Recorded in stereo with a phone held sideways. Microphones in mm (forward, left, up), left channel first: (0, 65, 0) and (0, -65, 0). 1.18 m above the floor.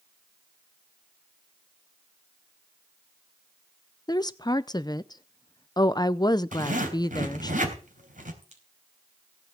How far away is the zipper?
About 3.5 m.